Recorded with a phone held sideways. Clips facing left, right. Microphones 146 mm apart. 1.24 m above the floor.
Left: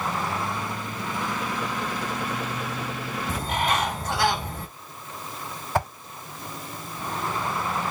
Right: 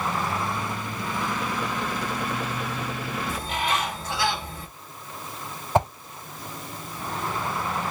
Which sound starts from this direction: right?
A whoosh, at 5.8 s.